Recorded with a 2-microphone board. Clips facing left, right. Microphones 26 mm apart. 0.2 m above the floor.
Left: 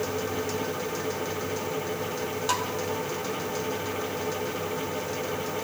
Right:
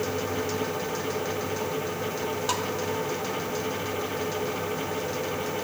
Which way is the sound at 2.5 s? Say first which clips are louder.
Left 3 dB; centre (ahead or behind).